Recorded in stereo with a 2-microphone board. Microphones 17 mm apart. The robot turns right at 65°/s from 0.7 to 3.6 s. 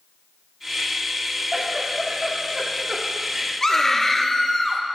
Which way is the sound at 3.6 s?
20° left (ahead or behind).